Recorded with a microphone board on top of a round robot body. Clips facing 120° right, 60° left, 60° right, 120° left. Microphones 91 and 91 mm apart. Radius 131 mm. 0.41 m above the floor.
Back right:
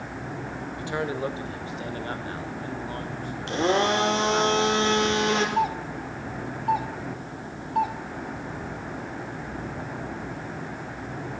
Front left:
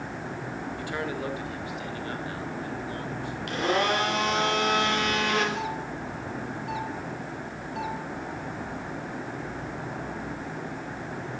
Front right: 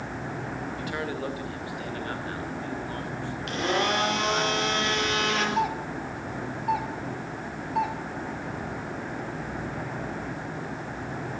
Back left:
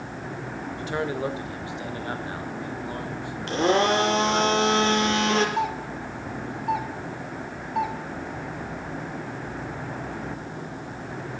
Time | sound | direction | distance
0.8 | a man speaking | 175° left | 2.5 m
3.5 | a blender | 175° left | 4 m
5.6 | a doorbell | 150° right | 2.5 m